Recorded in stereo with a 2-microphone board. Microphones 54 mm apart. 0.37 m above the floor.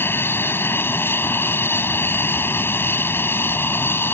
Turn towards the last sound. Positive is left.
turn(degrees=45)  # may be behind; listen again after turning